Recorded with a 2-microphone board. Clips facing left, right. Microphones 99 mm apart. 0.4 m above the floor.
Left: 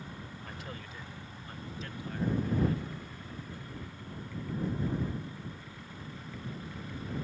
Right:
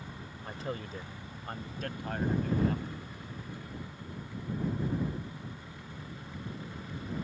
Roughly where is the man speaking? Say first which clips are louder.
Right 10 dB; right.